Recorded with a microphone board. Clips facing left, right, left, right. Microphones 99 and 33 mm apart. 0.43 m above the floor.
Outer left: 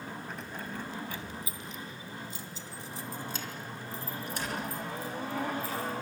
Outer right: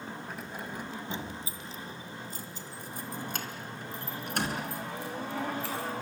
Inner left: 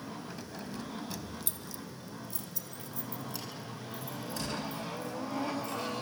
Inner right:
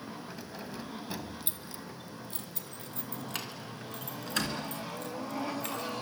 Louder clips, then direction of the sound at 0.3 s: Even, even; 5° right (ahead or behind).